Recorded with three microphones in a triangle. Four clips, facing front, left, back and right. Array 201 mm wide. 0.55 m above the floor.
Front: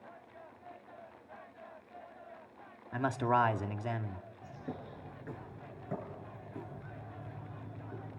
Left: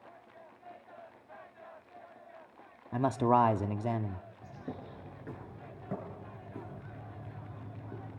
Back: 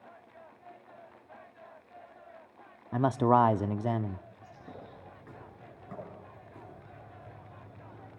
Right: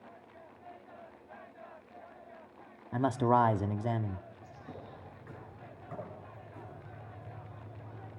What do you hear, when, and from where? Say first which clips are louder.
2.9 s a man speaking: even, back 6 dB; 170° left, 0.8 m
4.4 s a bird: left 4 dB, front 7 dB; 70° left, 8 m